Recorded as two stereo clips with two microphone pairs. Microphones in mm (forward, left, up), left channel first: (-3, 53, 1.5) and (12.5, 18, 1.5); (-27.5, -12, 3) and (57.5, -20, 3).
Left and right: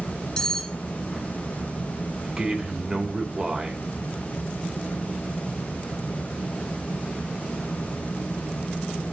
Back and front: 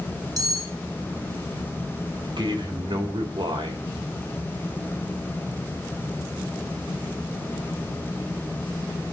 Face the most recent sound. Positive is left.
turn(degrees=10)